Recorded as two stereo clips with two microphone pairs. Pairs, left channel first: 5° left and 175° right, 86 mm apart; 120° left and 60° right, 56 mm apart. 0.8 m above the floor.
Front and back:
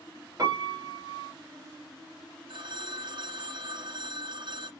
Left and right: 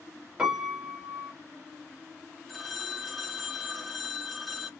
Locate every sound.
0.4 s a piano: 130° right, 1.3 m
2.5 s a phone ringing: 150° right, 0.6 m